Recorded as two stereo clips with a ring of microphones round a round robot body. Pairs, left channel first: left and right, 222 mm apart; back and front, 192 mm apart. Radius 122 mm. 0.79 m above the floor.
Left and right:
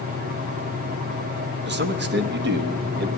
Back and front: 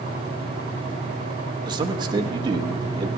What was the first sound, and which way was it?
A man speaking, 65° right.